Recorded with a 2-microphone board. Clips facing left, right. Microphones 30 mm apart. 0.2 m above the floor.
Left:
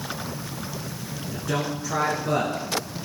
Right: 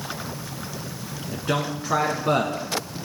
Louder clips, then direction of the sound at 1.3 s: Right 2 dB; 40° right (ahead or behind).